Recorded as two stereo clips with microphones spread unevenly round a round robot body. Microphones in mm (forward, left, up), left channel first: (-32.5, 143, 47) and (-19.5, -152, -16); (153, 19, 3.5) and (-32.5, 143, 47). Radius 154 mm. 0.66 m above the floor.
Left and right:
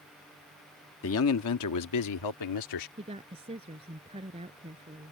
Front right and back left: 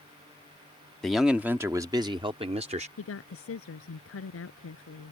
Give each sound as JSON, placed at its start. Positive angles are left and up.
{"t": 1.0, "sound": "a man speaking", "azimuth_deg": 45}
{"t": 3.0, "sound": "a woman speaking", "azimuth_deg": -15}